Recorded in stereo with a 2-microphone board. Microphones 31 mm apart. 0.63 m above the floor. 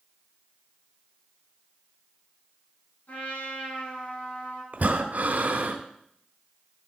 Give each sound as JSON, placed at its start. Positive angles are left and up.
{"t": 3.1, "sound": "a trumpet", "side_deg": 80, "distance_m": 6.0}
{"t": 4.7, "sound": "breathing", "side_deg": -60, "distance_m": 1.2}